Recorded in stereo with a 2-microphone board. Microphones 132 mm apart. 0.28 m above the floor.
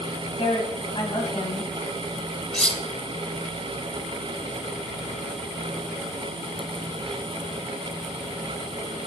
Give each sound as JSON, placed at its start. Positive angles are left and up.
{"t": 0.4, "sound": "a woman speaking", "side_deg": 45, "distance_m": 1.9}
{"t": 2.5, "sound": "cutlery clinking", "side_deg": 5, "distance_m": 0.5}